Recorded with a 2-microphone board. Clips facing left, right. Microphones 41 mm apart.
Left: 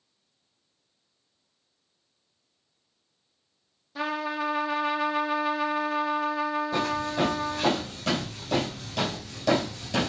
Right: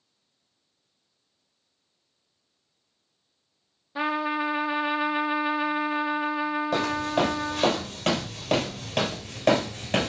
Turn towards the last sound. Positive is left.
turn(degrees=-40)  # may be behind; listen again after turning